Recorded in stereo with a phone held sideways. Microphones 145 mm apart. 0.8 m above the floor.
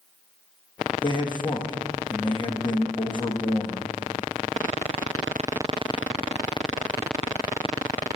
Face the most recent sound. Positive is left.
turn(degrees=35)  # may be behind; listen again after turning